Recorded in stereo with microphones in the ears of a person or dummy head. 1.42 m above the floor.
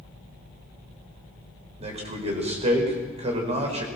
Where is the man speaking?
35° right (ahead or behind), 5 m.